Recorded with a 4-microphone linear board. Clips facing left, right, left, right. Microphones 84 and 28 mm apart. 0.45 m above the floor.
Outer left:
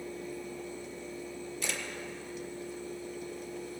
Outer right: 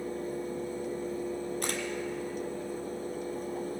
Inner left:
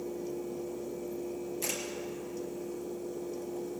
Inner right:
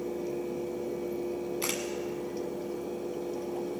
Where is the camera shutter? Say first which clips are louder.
Outer right 4 dB, inner right 2 dB; 50° right (ahead or behind), 1.5 m.